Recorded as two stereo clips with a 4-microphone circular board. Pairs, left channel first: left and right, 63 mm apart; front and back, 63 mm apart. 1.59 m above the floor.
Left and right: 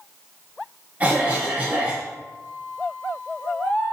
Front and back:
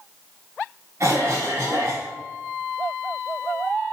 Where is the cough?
150° right, 0.6 m.